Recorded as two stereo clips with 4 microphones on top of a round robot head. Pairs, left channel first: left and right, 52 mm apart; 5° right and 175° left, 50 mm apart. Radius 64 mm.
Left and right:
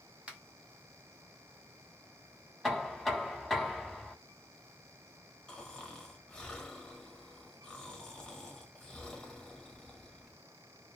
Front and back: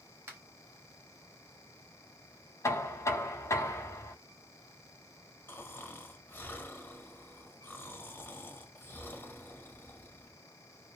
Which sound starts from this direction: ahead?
Knocking, at 2.6 s.